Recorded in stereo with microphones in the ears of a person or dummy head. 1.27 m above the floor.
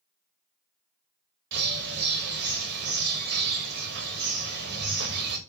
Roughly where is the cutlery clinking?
I don't hear cutlery clinking.